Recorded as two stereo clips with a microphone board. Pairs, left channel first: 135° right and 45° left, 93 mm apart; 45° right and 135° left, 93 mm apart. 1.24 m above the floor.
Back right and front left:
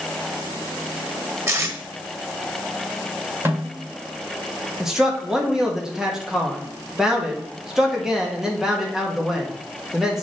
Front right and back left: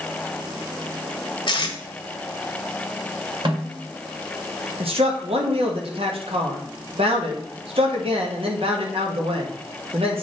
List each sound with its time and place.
1.5 s tape being pulled: 15° right, 1.2 m
3.5 s a snare drum: 110° left, 2 m
4.8 s a man speaking: 130° left, 1.5 m